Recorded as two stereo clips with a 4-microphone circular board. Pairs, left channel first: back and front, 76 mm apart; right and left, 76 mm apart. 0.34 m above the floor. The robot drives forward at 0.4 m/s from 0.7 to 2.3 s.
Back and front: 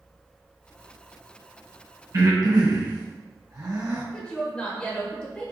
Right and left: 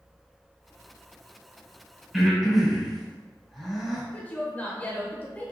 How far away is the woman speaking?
About 0.8 m.